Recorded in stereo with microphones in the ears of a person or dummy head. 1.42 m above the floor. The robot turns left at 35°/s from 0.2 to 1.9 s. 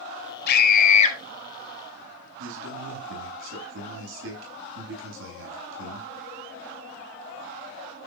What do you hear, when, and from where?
0.5 s a scream: 60° left (ahead or behind), 4 m; by 1.2 s 35° left (ahead or behind), 4 m
2.4 s a man speaking: 75° right (ahead or behind), 9 m